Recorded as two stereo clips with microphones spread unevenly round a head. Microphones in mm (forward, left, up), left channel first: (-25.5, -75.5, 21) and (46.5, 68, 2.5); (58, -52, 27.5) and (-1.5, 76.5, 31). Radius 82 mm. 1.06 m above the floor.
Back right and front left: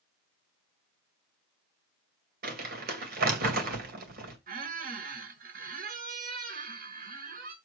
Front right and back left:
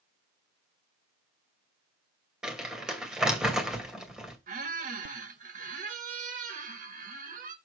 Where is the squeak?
100° left, 1.2 m.